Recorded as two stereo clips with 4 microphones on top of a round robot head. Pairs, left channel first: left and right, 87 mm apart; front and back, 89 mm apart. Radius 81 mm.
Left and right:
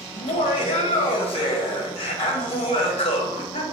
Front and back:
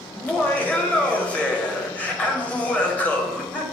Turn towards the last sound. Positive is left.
turn(degrees=75)